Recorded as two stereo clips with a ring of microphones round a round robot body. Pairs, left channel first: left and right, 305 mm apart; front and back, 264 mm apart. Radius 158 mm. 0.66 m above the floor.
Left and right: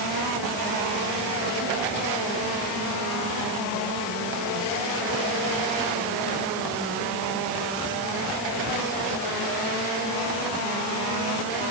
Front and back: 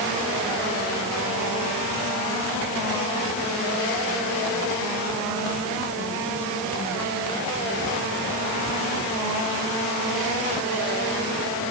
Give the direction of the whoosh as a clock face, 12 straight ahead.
I don't hear a whoosh.